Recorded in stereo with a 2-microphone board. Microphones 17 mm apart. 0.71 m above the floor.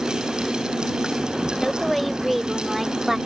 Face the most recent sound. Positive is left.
turn(degrees=-20)  # may be behind; listen again after turning